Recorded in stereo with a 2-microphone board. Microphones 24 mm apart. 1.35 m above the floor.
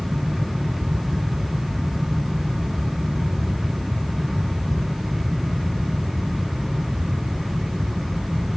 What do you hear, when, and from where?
Only background noise.